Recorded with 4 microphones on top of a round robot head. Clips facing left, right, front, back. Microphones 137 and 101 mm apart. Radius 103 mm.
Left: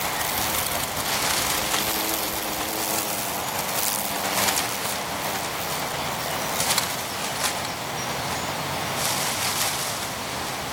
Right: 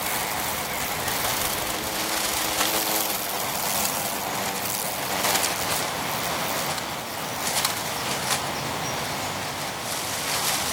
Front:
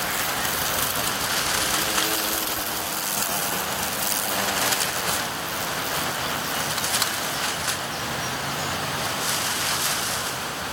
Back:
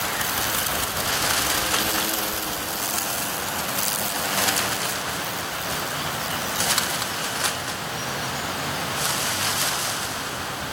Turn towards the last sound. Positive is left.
No sound to turn to.